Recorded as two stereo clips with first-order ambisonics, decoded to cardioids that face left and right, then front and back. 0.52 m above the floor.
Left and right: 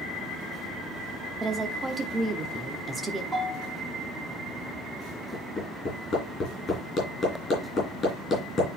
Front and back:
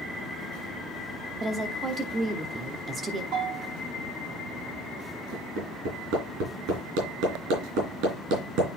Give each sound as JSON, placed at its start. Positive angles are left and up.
{"t": 1.4, "sound": "a woman speaking", "azimuth_deg": -145, "distance_m": 0.8}
{"t": 3.3, "sound": "a bell", "azimuth_deg": -170, "distance_m": 6.5}
{"t": 5.3, "sound": "hammering", "azimuth_deg": 160, "distance_m": 4.0}